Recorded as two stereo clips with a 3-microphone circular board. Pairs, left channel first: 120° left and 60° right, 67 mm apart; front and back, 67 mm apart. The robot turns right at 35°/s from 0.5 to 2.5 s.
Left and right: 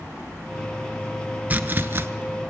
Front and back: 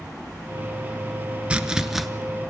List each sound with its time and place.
1.5 s chopping: 110° right, 1.0 m; by 2.1 s 90° right, 1.0 m